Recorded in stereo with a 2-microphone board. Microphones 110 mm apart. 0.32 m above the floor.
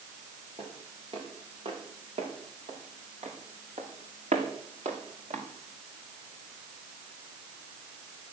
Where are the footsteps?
50° right (ahead or behind), 6 m; by 5.5 s 85° right, 3.5 m.